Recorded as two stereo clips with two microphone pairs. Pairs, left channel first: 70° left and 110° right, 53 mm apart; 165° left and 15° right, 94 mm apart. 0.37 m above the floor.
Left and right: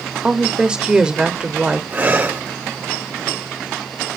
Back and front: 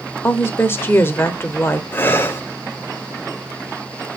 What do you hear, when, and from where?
0.2 s a woman speaking: 165° right, 1.0 m
1.9 s breathing: 140° right, 1.2 m